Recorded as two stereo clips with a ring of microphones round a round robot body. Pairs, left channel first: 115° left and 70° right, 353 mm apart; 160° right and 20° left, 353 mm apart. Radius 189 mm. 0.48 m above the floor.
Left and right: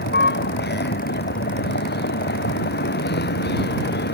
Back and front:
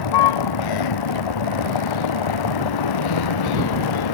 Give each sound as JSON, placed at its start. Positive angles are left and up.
{"t": 0.0, "sound": "a vehicle", "azimuth_deg": 175}